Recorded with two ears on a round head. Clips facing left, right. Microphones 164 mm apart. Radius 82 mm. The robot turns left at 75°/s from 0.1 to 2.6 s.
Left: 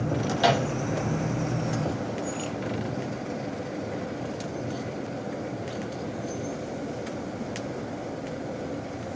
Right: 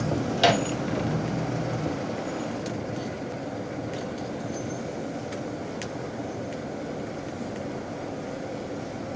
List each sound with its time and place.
0.4 s a microwave: 25° right (ahead or behind), 1.2 m; by 0.7 s 45° right (ahead or behind), 1.2 m